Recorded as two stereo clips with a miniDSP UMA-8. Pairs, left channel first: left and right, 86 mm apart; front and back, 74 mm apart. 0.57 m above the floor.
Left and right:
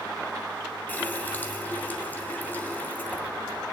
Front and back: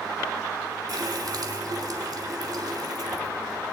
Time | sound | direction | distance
0.9 | a running tap | 160° left | 1.9 m